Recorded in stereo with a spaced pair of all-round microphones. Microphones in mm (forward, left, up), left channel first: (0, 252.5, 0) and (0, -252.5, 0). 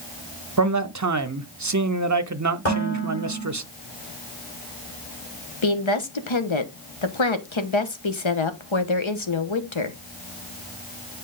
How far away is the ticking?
No ticking in this recording.